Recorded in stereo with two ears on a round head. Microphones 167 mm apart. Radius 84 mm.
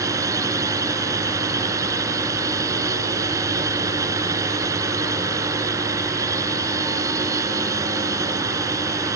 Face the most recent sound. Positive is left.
turn(degrees=-20)  # may be behind; listen again after turning